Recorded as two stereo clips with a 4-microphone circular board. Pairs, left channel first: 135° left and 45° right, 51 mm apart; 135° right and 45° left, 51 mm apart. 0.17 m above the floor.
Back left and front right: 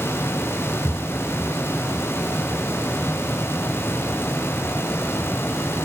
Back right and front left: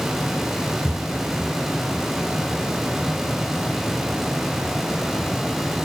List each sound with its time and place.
0.8 s footsteps: 120° left; by 5.8 s 155° left